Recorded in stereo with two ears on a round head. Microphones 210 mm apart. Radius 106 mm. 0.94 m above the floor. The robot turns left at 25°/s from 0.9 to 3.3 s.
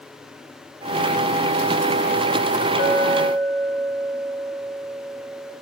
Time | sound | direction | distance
2.8 | a clink | 85° left | 6 m